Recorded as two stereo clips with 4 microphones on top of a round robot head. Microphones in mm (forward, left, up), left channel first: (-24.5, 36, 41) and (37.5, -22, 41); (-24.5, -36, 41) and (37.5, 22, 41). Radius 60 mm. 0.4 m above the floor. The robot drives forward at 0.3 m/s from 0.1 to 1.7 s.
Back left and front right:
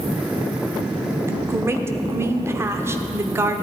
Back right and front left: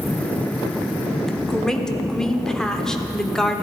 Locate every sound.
1.3 s a woman speaking: 50° right, 1.2 m; by 3.6 s 60° right, 1.2 m